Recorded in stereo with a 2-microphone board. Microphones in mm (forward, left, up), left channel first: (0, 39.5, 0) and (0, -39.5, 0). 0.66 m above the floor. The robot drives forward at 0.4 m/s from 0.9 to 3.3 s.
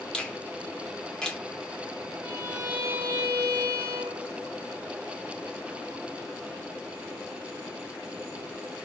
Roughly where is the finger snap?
Centre.